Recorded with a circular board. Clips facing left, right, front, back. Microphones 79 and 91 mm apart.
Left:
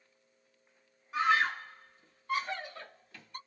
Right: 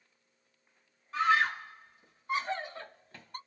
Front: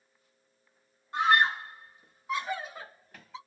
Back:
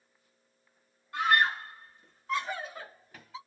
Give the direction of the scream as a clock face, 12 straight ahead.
11 o'clock.